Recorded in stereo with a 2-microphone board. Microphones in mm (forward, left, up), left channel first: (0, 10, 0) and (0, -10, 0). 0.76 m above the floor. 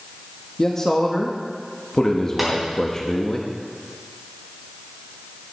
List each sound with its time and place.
0.6 s a man speaking: 30° left (ahead or behind), 1.1 m
2.4 s tapping: 10° right (ahead or behind), 4 m